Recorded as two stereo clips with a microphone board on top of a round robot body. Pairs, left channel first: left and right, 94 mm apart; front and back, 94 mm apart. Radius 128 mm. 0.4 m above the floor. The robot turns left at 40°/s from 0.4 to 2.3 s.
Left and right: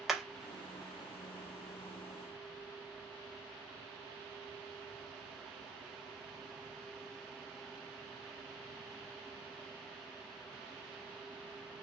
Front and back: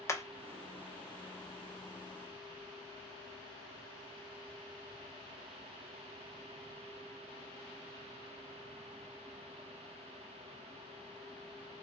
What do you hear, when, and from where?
0.1 s hammering: 5° right, 0.7 m